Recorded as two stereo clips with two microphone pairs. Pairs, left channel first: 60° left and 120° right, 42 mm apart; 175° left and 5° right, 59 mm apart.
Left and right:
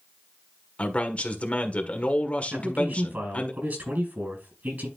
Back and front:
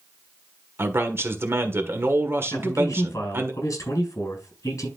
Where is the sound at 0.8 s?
15° left, 1.5 m.